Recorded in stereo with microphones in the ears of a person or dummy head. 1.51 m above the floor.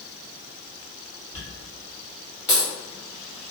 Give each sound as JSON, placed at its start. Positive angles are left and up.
{"t": 1.3, "sound": "a dropped coin", "side_deg": 30, "distance_m": 1.4}